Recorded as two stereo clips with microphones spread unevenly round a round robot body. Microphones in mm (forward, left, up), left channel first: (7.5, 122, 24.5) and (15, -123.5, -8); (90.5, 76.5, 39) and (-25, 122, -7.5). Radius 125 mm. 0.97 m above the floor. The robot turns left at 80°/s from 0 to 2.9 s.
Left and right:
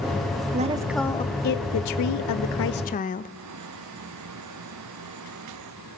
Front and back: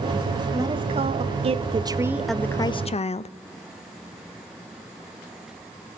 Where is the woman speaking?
140° right, 0.5 m; by 3.3 s 30° left, 0.5 m.